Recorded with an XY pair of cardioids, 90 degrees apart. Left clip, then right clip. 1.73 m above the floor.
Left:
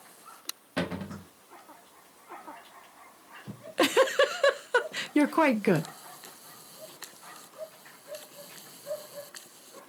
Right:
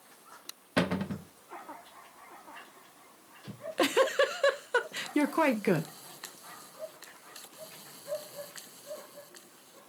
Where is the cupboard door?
45° right, 1.7 m.